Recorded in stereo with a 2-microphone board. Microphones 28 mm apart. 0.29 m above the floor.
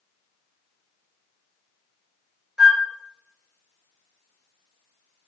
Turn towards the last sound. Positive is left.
turn(degrees=-20)  # may be behind; listen again after turning